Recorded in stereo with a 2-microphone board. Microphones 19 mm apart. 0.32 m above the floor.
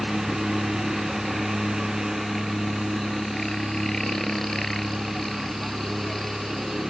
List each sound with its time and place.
0.0 s a helicopter: 30° left (ahead or behind); by 6.9 s 25° left (ahead or behind)